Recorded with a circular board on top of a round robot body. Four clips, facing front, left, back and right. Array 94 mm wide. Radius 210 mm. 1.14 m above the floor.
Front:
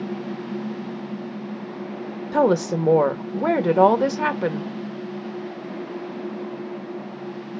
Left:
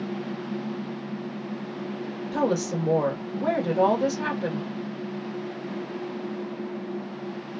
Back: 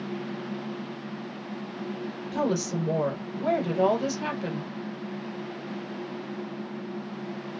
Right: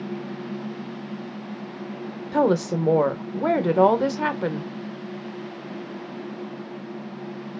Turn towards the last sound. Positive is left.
turn(degrees=-30)